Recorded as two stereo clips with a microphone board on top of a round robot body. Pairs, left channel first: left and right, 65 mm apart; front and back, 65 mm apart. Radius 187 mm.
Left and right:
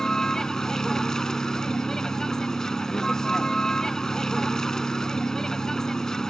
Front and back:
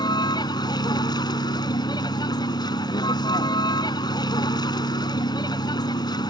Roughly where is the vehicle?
Ahead.